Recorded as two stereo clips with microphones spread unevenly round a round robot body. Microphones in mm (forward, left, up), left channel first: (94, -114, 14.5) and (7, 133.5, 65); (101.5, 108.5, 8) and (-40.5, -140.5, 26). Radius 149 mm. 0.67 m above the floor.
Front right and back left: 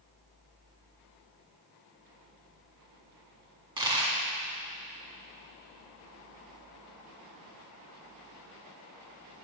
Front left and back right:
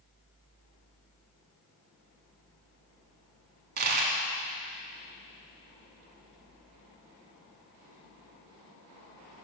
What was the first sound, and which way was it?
A dropped coin, straight behind.